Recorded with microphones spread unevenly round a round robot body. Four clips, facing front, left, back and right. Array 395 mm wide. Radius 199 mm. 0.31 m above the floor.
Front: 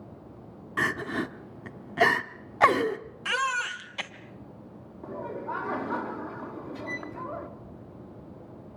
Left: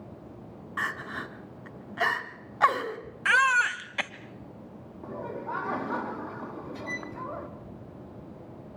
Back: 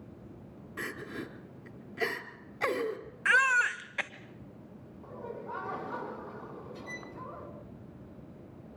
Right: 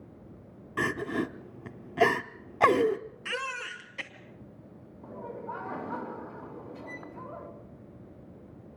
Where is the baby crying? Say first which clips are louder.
Left 14 dB, back 3 dB; 75° left, 1.4 m.